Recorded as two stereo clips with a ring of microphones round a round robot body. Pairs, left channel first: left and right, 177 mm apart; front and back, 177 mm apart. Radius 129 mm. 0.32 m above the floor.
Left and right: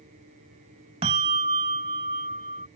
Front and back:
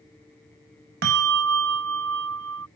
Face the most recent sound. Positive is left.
turn(degrees=-155)